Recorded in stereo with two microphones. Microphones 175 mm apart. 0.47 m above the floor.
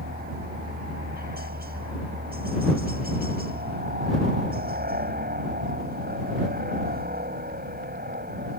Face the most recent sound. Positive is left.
turn(degrees=-60)  # may be behind; listen again after turning